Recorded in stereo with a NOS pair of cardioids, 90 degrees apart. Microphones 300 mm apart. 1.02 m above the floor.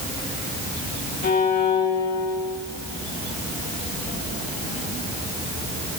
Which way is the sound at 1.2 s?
30° left.